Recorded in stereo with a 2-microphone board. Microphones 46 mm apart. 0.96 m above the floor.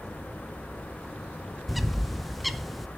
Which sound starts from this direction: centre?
A bird, at 1.7 s.